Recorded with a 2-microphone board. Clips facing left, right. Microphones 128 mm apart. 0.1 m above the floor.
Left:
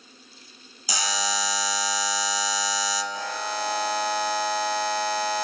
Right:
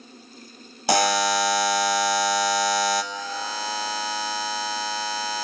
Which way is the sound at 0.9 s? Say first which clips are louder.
Right 9 dB; 65° right (ahead or behind).